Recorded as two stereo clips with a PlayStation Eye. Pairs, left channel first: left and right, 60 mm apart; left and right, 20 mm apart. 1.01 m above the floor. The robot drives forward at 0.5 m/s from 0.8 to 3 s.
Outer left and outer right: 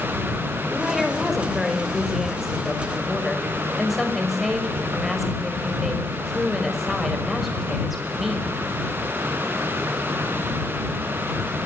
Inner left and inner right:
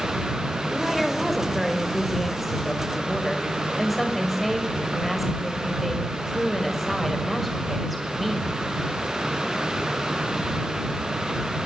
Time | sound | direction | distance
0.7 | a woman speaking | 5° right (ahead or behind) | 4.5 m